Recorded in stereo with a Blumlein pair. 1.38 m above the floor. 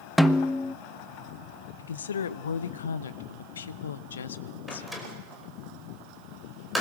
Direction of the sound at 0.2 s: Straight ahead.